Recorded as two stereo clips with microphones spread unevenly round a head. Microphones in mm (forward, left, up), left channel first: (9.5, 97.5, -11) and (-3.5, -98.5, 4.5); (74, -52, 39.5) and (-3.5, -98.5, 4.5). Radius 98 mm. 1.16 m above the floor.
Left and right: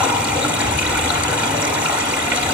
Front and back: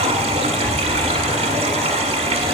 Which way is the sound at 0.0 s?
170° right.